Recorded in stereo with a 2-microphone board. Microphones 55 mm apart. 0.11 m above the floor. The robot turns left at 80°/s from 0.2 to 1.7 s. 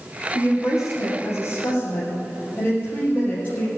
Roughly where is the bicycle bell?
I don't hear a bicycle bell.